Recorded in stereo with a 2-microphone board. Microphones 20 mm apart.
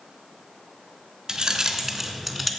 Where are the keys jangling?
40° right (ahead or behind), 1.0 m; by 2.5 s 5° left (ahead or behind), 0.8 m.